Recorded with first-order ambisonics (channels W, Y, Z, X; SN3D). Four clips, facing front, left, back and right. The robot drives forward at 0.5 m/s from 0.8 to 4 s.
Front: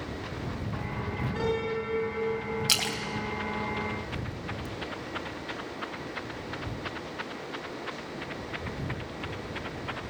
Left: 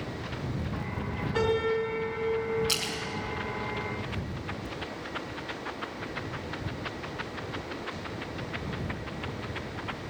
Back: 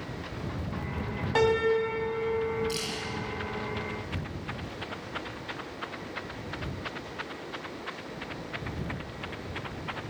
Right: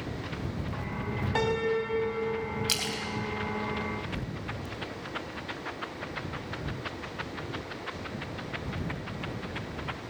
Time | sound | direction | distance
1.4 | a piano | 150° right | 4 m
2.7 | a splash | 15° right | 2.5 m